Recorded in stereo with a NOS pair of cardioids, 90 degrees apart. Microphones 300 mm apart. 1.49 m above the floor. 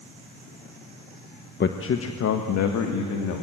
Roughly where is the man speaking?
Ahead left.